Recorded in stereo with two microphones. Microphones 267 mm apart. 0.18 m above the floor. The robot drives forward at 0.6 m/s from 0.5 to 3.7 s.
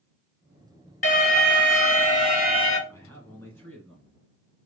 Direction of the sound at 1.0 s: 35° left (ahead or behind).